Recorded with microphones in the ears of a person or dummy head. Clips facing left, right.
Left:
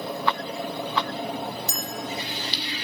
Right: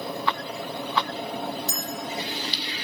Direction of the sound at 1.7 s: 55° left (ahead or behind).